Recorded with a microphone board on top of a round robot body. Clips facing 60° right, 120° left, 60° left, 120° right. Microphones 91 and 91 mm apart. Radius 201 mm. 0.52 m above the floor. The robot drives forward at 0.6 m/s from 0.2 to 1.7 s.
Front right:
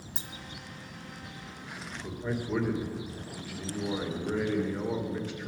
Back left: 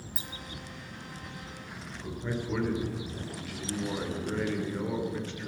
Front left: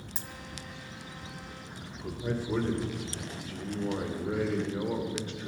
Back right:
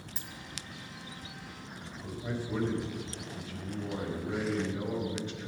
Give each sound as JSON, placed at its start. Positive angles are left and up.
{"t": 0.1, "sound": "a dropped coin", "azimuth_deg": 5, "distance_m": 0.7}
{"t": 1.8, "sound": "a man speaking", "azimuth_deg": 20, "distance_m": 3.0}